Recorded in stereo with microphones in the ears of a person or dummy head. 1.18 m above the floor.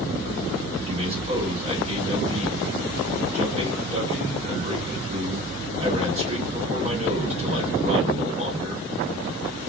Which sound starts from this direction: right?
A man speaking, at 0.9 s.